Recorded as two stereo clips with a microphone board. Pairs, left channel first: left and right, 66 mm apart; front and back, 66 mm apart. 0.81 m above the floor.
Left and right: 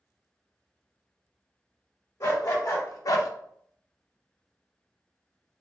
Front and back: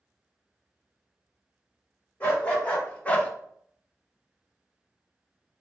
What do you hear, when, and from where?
2.2 s a dog barking: 65° left, 1.4 m